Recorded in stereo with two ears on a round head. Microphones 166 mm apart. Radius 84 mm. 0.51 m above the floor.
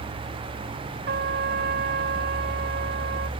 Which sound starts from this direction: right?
A trumpet, at 1.1 s.